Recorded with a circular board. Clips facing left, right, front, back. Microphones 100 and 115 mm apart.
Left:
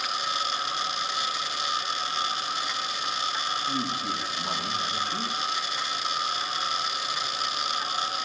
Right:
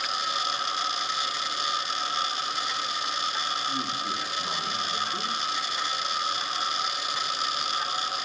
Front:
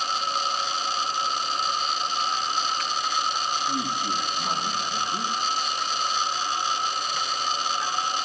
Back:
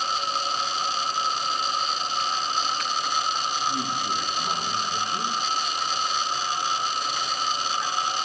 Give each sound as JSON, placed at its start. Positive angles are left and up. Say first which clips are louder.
{"t": 3.7, "sound": "a man speaking", "louder": "left 1 dB, even", "azimuth_deg": 75, "distance_m": 7.0}